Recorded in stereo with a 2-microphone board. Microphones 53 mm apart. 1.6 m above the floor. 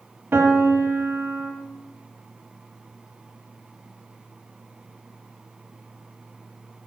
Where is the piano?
45° right (ahead or behind), 1.4 m.